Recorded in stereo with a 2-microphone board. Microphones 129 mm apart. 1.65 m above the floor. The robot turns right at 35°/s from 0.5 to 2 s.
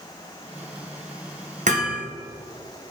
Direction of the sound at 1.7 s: 70° right (ahead or behind).